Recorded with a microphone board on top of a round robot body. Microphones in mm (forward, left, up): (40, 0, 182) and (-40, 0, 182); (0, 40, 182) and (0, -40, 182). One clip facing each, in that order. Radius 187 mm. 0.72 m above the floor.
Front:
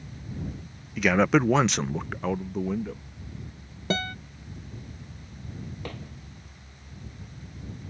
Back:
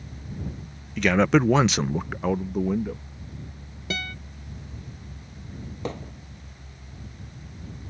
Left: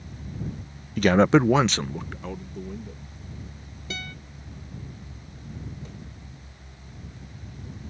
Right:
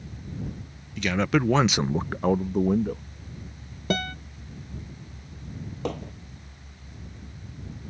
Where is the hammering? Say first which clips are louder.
Back 10 dB, right 12 dB; 110° right.